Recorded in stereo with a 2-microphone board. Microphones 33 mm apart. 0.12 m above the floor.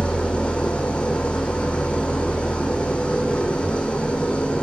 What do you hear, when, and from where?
0.0 s an engine running: 30° left (ahead or behind), 1.4 m